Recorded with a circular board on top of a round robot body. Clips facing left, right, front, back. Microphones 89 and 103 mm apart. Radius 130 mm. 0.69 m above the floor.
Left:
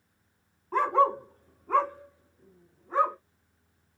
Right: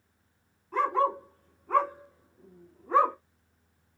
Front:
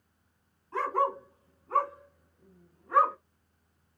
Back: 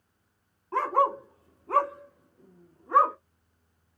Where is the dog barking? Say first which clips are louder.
Left 3 dB, back 4 dB; 145° left, 1.2 m; by 3.1 s 110° right, 1.0 m.